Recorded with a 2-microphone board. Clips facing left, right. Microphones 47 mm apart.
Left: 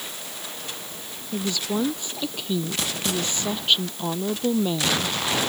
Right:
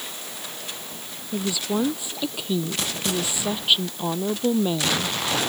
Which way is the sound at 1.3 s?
5° right (ahead or behind).